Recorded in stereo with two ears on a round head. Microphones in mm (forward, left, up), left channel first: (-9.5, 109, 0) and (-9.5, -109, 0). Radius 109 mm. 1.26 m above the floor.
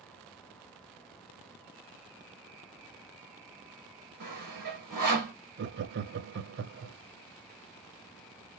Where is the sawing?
40° right (ahead or behind), 2.5 m.